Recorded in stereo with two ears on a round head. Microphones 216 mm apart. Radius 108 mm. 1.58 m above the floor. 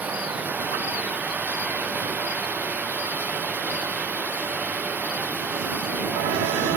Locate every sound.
0.0 s running water: 5° right (ahead or behind)